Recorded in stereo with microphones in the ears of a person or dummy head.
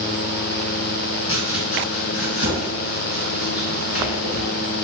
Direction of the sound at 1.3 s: 55° left (ahead or behind).